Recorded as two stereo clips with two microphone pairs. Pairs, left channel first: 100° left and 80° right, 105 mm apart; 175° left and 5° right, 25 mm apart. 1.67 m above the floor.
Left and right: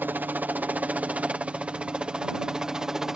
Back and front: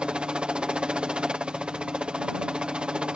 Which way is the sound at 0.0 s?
15° right.